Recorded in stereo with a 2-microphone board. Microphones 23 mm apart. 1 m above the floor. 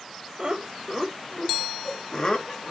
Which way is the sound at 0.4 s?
40° right (ahead or behind).